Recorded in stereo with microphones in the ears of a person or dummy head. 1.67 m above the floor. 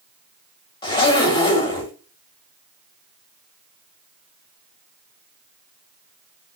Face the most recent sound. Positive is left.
turn(degrees=25)  # may be behind; listen again after turning